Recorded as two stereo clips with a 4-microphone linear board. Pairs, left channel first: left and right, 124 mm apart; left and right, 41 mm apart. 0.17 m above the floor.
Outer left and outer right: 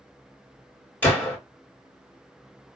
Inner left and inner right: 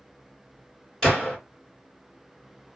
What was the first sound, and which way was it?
A gunshot, 15° left (ahead or behind).